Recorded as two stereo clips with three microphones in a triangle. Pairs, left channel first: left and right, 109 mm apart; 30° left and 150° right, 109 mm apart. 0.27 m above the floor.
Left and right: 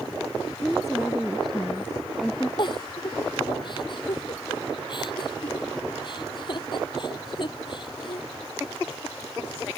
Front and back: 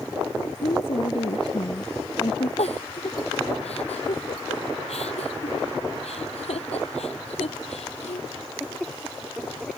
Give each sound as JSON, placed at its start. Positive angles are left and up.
{"t": 0.6, "sound": "a woman speaking", "azimuth_deg": 0}
{"t": 2.6, "sound": "a giggle", "azimuth_deg": 45}